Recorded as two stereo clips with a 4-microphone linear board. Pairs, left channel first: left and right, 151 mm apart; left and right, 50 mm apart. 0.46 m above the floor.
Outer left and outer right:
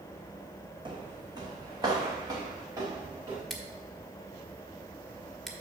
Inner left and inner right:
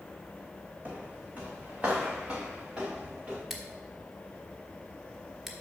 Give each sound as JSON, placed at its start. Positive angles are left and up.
{"t": 0.8, "sound": "footsteps", "side_deg": -30, "distance_m": 1.5}
{"t": 3.5, "sound": "scissors", "side_deg": 0, "distance_m": 1.2}